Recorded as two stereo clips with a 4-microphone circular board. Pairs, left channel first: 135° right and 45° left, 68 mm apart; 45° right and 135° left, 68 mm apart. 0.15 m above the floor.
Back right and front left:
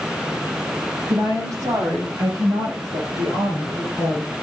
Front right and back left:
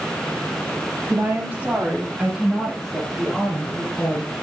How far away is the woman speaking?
About 5.5 m.